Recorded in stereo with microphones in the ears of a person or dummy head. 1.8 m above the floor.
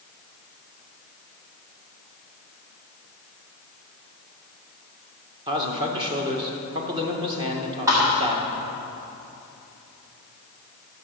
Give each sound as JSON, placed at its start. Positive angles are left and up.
{"t": 5.5, "sound": "a man speaking", "side_deg": -30, "distance_m": 1.7}
{"t": 7.9, "sound": "a thud", "side_deg": -10, "distance_m": 1.8}